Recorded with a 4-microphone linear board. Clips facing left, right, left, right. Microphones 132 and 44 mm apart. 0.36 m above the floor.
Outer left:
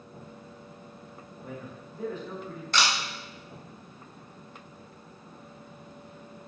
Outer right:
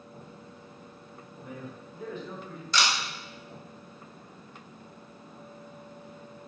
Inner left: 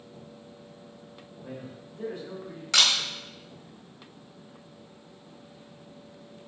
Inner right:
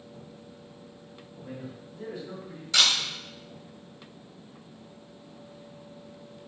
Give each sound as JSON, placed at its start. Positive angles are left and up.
{"t": 1.4, "sound": "a man speaking", "side_deg": 40, "distance_m": 1.0}
{"t": 2.7, "sound": "a camera shutter", "side_deg": 55, "distance_m": 0.7}